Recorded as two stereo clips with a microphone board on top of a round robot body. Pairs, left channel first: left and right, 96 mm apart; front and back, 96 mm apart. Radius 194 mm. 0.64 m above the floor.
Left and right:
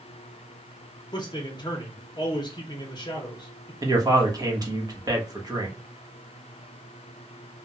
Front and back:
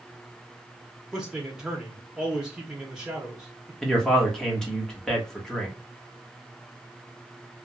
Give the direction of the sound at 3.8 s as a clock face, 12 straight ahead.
3 o'clock.